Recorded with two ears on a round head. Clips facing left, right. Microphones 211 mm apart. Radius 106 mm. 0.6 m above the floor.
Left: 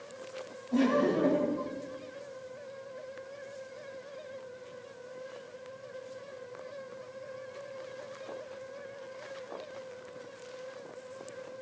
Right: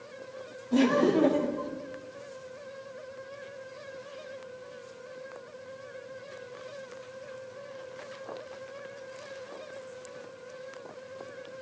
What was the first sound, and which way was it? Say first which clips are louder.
Laughter: right 3 dB; 50° right (ahead or behind).